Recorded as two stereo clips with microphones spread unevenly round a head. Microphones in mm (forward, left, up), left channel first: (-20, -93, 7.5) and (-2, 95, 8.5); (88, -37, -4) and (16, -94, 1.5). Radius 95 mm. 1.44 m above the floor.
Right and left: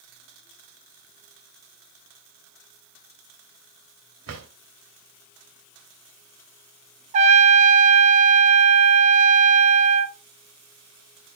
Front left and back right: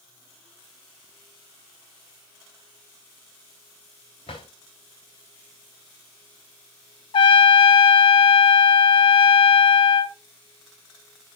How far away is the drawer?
About 3 m.